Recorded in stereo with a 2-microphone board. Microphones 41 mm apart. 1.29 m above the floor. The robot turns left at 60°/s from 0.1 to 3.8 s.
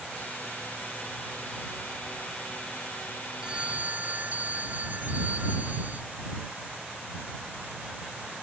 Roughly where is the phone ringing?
Centre.